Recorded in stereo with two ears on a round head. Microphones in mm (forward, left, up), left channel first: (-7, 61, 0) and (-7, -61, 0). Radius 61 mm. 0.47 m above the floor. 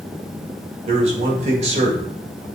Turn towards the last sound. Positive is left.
turn(degrees=-50)  # may be behind; listen again after turning